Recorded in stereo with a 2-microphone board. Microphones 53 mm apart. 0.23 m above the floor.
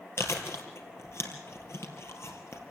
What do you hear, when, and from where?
0.2 s chewing: 60° left (ahead or behind), 3.5 m